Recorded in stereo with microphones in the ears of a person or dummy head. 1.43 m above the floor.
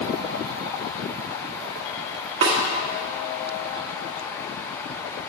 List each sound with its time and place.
2.4 s a snare drum: 35° right (ahead or behind), 1.1 m